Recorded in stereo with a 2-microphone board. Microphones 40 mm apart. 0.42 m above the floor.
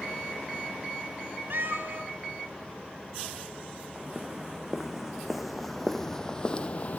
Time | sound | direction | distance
1.5 | a cat meowing | 75° right (ahead or behind) | 1.7 m
3.9 | footsteps | 15° right (ahead or behind) | 2 m